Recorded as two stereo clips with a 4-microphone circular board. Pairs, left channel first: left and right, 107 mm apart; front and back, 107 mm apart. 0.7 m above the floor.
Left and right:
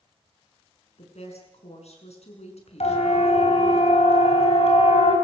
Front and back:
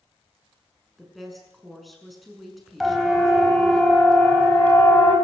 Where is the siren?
90° left, 4 m; by 5.2 s 75° left, 4.5 m.